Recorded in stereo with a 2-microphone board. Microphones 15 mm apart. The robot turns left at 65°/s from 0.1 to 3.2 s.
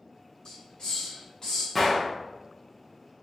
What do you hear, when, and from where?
0.5 s a hiss: 45° left (ahead or behind), 1.4 m
1.8 s a gunshot: 15° left (ahead or behind), 0.7 m; by 2.1 s 35° left (ahead or behind), 0.7 m